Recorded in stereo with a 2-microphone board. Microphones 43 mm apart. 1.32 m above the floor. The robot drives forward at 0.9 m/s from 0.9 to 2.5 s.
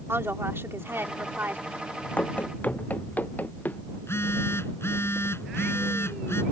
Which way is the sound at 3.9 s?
80° left.